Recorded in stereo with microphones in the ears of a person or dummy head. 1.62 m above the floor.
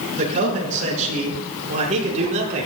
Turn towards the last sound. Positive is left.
turn(degrees=-40)  # may be behind; listen again after turning